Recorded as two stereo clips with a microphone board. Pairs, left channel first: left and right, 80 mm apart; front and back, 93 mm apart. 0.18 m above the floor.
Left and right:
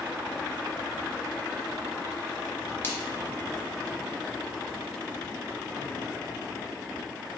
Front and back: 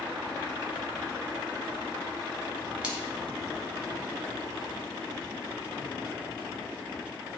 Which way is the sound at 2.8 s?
115° left.